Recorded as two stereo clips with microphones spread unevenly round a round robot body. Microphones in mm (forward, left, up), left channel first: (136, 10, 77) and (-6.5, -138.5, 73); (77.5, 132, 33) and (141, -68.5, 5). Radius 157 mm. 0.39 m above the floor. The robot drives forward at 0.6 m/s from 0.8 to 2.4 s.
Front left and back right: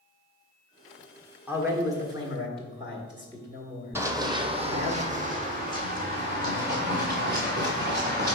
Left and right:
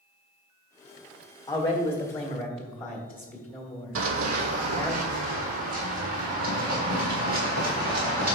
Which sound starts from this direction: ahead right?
Running footsteps, at 4.0 s.